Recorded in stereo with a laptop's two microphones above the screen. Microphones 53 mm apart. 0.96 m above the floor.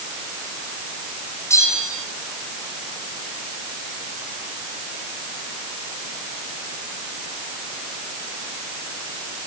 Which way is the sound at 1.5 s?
70° left (ahead or behind).